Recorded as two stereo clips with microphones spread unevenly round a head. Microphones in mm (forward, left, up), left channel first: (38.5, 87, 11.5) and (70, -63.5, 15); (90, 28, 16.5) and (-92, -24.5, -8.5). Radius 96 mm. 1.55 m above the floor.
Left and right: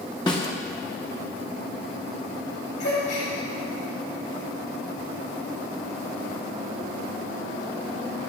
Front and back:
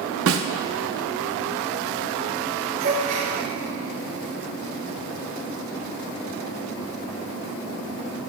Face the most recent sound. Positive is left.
turn(degrees=145)